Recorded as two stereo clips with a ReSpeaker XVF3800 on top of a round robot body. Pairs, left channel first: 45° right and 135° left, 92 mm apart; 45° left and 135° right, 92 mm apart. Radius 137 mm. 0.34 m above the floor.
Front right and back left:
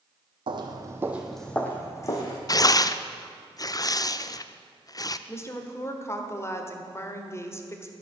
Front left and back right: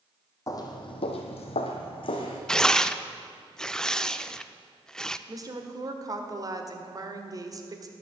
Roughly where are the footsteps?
Left.